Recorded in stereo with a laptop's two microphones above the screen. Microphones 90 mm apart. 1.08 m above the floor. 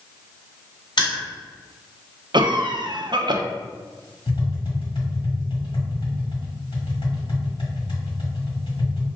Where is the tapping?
80° left, 1.7 m.